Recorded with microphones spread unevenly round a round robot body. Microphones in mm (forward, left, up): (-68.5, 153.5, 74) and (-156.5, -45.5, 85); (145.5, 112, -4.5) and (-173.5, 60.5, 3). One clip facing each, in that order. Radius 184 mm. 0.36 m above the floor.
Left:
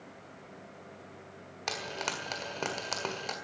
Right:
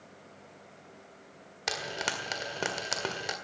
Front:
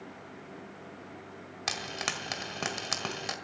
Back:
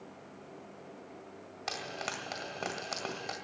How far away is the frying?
About 1.7 m.